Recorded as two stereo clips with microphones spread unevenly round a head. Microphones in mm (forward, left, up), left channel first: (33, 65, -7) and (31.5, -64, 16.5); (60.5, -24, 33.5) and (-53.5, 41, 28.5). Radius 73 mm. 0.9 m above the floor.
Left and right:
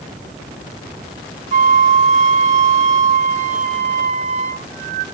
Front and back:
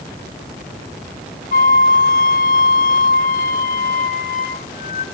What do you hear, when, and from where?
1.5 s a flute: 60° right, 1.4 m